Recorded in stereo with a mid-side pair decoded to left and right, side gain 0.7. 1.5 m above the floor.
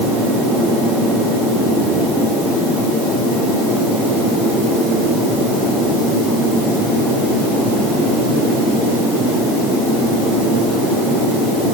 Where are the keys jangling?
I don't hear keys jangling.